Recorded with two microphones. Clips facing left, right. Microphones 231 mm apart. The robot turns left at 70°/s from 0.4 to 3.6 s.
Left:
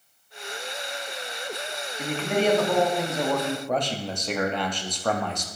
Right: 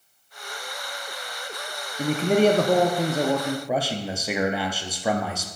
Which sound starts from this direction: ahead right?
A man speaking, at 2.0 s.